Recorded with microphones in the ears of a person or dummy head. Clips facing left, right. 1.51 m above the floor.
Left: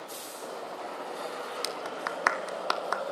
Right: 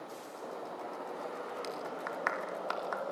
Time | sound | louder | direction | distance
1.6 | a clap | left 3 dB | 75° left (ahead or behind) | 2.5 m